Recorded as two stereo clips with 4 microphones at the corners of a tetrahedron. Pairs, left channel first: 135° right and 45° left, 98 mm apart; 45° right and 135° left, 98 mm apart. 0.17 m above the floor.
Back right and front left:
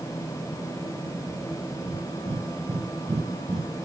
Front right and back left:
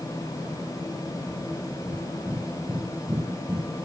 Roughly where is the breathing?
Ahead left.